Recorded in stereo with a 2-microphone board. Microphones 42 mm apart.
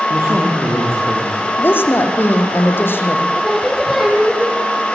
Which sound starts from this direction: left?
A woman speaking, at 1.6 s.